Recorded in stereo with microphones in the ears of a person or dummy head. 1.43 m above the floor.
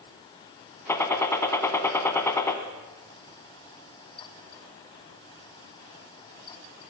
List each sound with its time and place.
0.9 s a gunshot: 25° left (ahead or behind), 2.0 m